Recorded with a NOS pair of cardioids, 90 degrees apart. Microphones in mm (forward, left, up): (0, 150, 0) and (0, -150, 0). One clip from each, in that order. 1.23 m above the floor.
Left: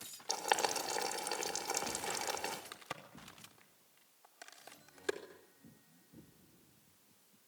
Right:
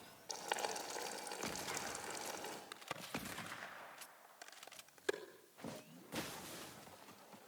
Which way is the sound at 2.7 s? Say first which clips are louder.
Right 1 dB; 10° left.